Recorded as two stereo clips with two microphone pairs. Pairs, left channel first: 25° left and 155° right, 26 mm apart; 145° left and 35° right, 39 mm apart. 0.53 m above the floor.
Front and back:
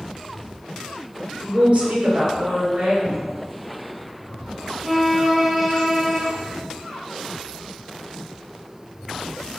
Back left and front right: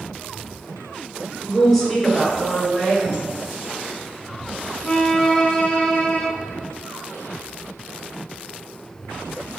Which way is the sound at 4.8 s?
130° left.